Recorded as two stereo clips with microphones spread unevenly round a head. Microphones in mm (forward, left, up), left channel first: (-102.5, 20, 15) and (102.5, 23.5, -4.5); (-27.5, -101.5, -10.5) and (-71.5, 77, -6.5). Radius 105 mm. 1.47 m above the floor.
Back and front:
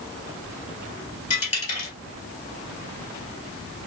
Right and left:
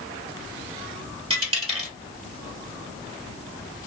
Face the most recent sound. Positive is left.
turn(degrees=150)